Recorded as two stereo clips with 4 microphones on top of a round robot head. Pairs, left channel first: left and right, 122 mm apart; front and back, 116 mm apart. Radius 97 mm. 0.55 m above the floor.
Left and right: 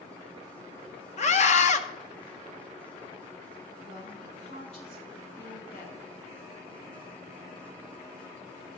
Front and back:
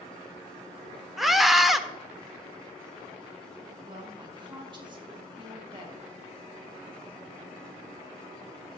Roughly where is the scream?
Left.